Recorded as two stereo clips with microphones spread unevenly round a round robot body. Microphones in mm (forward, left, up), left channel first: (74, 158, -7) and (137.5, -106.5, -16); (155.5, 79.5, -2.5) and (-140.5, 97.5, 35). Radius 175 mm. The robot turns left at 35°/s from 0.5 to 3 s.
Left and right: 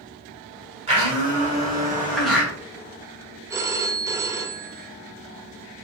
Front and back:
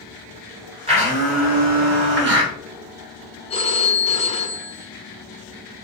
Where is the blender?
115° right, 1.4 m; by 2.5 s 175° right, 1.4 m.